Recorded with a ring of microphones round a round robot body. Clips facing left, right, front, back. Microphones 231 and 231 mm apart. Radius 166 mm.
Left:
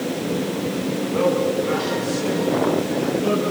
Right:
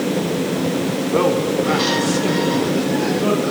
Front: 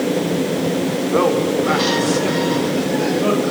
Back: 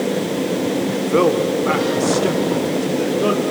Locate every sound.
0.9 s a man speaking: 125° right, 2 m; by 3.4 s 140° right, 4 m